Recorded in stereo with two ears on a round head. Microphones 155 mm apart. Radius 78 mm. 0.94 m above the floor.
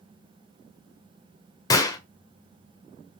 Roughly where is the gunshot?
Left.